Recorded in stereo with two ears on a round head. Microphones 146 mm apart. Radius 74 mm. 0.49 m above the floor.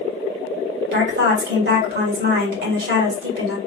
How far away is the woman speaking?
About 2 m.